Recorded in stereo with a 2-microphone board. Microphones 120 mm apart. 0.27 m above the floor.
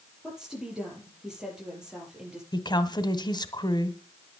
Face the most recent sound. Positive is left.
turn(degrees=35)  # may be behind; listen again after turning